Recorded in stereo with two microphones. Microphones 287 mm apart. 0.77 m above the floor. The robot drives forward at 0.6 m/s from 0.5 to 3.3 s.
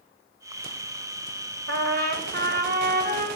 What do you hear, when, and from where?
1.7 s a trumpet: 65° right (ahead or behind), 1.2 m; by 3.3 s 35° right (ahead or behind), 1.8 m